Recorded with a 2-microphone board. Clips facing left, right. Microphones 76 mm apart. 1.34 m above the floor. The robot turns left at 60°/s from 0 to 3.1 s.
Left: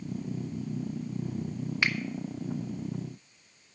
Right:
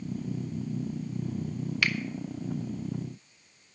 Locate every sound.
1.8 s a finger snap: 25° left (ahead or behind), 0.7 m; by 2.0 s 20° left (ahead or behind), 0.7 m